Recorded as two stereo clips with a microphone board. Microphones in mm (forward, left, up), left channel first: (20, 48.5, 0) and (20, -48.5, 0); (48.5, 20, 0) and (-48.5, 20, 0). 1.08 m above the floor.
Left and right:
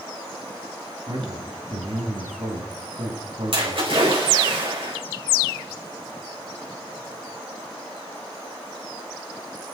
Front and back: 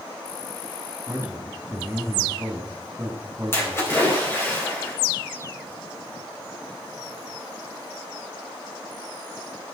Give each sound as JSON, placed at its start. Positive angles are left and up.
{"t": 1.1, "sound": "a man speaking", "azimuth_deg": -115, "distance_m": 3.0}
{"t": 3.5, "sound": "a splash", "azimuth_deg": -65, "distance_m": 4.5}